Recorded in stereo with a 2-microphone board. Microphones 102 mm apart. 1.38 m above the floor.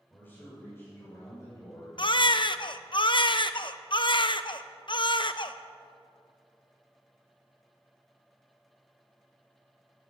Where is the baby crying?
50° left (ahead or behind), 0.6 m.